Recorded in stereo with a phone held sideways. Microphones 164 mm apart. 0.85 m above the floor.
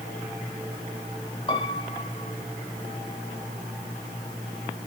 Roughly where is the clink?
No clink in this recording.